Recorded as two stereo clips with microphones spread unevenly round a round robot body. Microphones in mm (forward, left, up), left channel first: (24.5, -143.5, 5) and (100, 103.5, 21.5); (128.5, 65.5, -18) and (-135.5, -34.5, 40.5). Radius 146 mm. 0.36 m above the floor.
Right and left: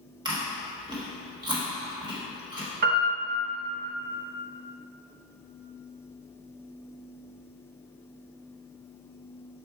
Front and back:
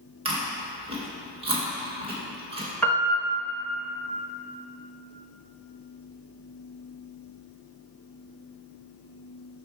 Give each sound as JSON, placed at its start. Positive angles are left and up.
{"t": 0.2, "sound": "chewing", "azimuth_deg": 130, "distance_m": 1.5}
{"t": 2.8, "sound": "a piano", "azimuth_deg": 80, "distance_m": 1.2}